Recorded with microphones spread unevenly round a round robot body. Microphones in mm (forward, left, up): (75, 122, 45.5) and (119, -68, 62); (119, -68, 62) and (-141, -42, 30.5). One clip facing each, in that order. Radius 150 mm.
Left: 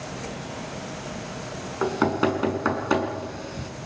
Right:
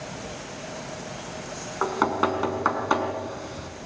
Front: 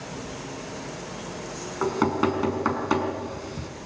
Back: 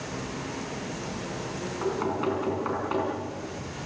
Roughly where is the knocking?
Ahead left.